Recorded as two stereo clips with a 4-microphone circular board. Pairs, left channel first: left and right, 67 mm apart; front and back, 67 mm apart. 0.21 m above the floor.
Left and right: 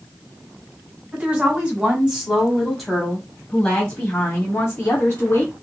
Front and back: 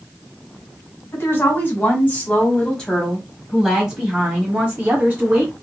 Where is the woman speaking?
35° right, 1.6 m; by 5.5 s 130° left, 1.7 m.